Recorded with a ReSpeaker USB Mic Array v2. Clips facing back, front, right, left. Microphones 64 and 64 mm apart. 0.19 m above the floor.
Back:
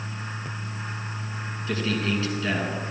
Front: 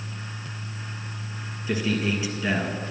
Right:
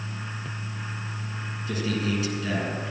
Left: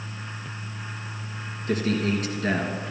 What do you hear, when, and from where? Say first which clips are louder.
1.7 s a man speaking: front 1 dB, left 3 dB; 75° left, 2.5 m